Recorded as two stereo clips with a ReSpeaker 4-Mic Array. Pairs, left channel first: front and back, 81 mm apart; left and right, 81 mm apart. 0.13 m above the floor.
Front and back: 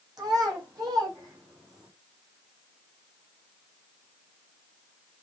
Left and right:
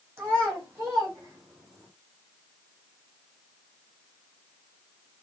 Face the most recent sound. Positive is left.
turn(degrees=-140)